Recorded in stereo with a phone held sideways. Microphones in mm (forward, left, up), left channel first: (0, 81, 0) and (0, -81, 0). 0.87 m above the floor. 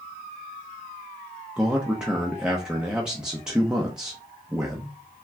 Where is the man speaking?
5° right (ahead or behind), 0.8 m.